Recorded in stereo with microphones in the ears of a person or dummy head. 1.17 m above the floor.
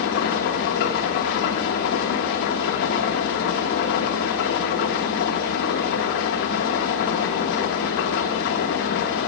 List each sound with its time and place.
0.0 s an engine running: 55° left (ahead or behind), 1.0 m